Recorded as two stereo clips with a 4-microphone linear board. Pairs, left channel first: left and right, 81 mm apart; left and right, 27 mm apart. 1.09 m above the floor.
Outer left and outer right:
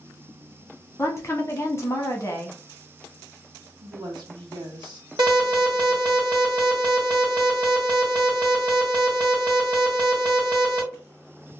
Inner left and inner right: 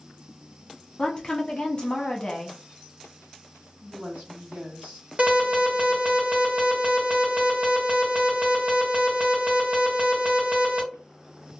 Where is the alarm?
60° right (ahead or behind), 1.2 m.